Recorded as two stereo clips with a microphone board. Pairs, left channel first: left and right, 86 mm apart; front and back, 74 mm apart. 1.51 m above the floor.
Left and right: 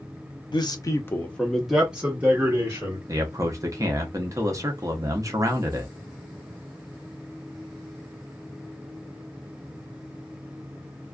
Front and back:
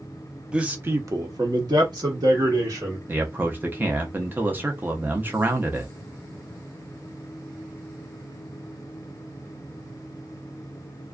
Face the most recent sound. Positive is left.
turn(degrees=-125)